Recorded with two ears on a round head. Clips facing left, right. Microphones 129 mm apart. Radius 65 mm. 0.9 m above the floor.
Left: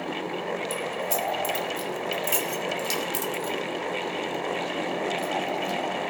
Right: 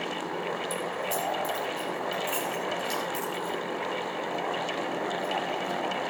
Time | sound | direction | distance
0.7 | keys jangling | 20° left (ahead or behind) | 2.5 m